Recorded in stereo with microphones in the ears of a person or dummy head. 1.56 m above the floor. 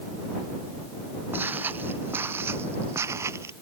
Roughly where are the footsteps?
Centre.